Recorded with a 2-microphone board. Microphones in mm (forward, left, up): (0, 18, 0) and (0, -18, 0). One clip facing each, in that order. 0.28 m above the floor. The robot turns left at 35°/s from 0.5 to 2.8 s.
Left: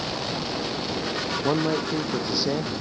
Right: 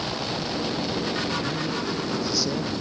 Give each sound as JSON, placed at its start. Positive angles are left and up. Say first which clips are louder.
{"t": 1.4, "sound": "a man speaking", "louder": "left 4 dB", "azimuth_deg": 60}